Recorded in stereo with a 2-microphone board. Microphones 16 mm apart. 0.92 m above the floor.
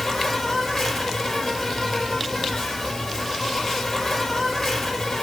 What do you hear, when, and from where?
0.0 s an insect: 10° left (ahead or behind), 4.5 m